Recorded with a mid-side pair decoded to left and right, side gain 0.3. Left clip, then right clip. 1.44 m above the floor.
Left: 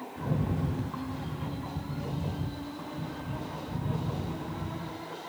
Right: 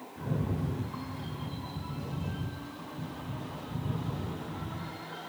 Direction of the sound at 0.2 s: 40° left.